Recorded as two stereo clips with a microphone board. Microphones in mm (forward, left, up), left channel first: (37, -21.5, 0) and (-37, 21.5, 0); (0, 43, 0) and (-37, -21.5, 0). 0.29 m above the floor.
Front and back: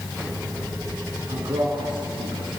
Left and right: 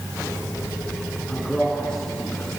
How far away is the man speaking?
About 4 m.